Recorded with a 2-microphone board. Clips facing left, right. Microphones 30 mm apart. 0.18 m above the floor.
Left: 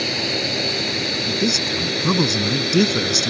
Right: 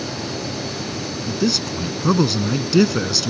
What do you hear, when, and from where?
0.0 s a drone: 60° left (ahead or behind); by 3.3 s 55° left (ahead or behind)
1.3 s a man speaking: 10° right (ahead or behind)